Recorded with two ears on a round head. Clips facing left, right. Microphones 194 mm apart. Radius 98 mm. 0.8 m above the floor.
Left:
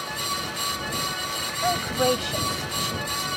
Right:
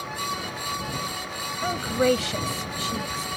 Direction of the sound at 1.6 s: 35° right (ahead or behind).